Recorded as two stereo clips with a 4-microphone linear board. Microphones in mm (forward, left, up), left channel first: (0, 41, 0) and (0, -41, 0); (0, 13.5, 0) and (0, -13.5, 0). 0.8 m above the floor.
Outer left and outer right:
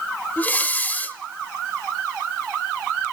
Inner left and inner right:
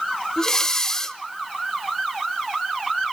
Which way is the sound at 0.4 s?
20° left (ahead or behind).